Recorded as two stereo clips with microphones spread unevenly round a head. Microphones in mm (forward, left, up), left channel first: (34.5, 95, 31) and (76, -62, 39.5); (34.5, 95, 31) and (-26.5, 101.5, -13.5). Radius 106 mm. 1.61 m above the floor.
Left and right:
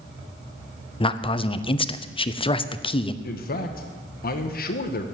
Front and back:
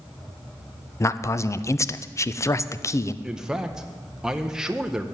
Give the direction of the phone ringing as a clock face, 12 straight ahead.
No phone ringing in this recording.